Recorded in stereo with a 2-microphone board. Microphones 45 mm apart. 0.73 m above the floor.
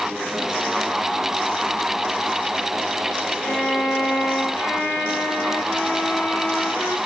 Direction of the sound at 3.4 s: 70° left (ahead or behind).